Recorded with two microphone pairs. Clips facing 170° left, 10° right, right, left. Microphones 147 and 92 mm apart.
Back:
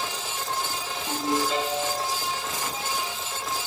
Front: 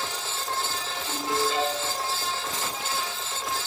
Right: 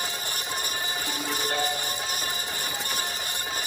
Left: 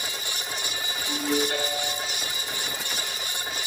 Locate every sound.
1.1 s a ringtone: 140° right, 5 m